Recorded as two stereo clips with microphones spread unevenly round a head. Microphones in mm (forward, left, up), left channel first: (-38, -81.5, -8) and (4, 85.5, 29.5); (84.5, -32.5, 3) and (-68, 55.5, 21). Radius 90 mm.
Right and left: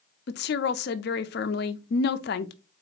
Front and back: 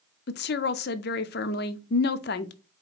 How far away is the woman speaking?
About 0.5 m.